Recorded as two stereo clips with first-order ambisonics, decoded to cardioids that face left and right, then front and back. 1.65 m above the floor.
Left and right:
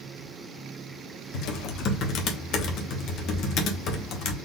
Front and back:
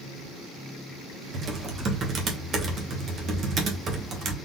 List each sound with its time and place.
1.3 s typing on a keyboard: 125° left, 1.1 m